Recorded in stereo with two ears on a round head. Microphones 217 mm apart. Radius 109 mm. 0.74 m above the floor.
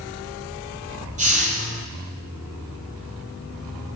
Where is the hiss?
30° right (ahead or behind), 4.5 m.